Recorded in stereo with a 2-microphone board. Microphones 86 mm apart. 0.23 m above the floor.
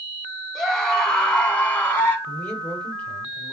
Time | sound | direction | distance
0.6 | a scream | centre (ahead or behind) | 2.5 m
2.3 | a man speaking | 15° left (ahead or behind) | 0.9 m